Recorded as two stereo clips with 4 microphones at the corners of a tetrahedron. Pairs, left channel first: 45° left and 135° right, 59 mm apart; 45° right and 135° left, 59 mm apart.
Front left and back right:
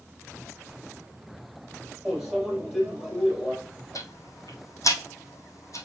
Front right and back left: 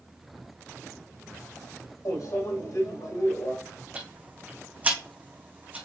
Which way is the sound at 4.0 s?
75° left.